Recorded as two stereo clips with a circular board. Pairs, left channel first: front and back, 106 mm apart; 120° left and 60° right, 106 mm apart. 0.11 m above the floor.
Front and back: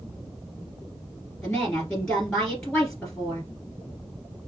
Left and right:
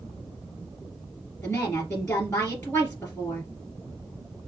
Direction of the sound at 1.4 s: 80° left.